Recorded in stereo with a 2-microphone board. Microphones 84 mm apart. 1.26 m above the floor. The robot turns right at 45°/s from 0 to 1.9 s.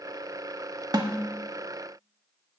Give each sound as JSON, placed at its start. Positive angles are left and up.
{"t": 0.9, "sound": "a snare drum", "side_deg": -55, "distance_m": 1.2}